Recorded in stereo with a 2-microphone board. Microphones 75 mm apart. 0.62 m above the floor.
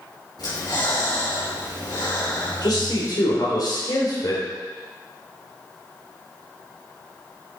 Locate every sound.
0.4 s breathing: 60° left (ahead or behind), 4.5 m
2.6 s a man speaking: 60° left (ahead or behind), 2.5 m